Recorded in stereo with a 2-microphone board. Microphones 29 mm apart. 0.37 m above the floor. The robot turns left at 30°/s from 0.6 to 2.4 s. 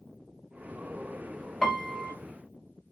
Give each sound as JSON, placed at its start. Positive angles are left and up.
{"t": 1.6, "sound": "a piano", "side_deg": 10, "distance_m": 0.9}